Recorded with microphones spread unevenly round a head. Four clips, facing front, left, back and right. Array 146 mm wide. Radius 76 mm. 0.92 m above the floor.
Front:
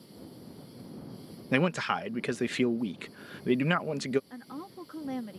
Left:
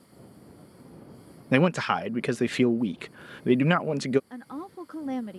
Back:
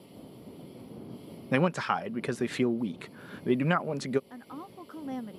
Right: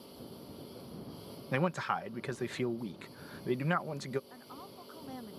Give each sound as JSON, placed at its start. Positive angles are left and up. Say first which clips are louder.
{"t": 0.0, "sound": "a lawn mower", "louder": "right 2 dB, even", "azimuth_deg": -120}
{"t": 1.5, "sound": "a man speaking", "louder": "left 10 dB, back 1 dB", "azimuth_deg": 75}
{"t": 4.3, "sound": "a woman speaking", "louder": "left 11 dB, front 1 dB", "azimuth_deg": 75}